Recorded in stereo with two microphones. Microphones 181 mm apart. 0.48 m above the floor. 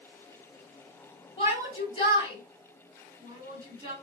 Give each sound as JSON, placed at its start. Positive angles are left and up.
{"t": 1.4, "sound": "a shout", "side_deg": 30, "distance_m": 4.0}